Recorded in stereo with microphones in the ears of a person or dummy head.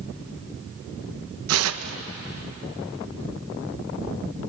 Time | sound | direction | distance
1.5 | tearing paper | 80° right | 1.1 m